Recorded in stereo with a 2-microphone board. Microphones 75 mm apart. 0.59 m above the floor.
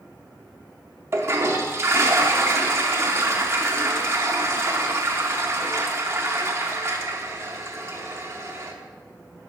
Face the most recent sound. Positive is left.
turn(degrees=-35)  # may be behind; listen again after turning